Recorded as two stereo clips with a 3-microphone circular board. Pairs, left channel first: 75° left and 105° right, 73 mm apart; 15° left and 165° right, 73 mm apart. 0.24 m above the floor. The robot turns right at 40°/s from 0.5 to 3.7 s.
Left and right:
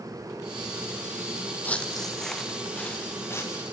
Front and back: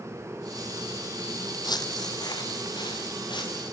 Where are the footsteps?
10° left, 0.6 m; by 3.6 s 30° left, 3 m.